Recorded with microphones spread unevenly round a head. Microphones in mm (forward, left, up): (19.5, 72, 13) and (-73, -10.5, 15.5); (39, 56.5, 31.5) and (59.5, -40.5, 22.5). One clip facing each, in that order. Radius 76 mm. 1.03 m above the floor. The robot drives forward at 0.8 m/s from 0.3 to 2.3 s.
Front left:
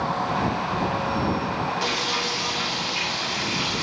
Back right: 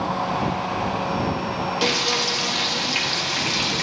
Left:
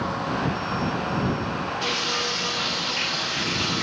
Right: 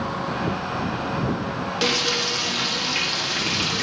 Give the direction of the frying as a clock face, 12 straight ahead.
3 o'clock.